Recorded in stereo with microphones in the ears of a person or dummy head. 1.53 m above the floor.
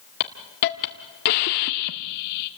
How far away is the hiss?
About 1.6 m.